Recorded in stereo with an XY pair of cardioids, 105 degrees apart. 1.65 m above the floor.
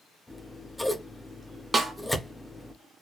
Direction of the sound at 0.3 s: 10° left.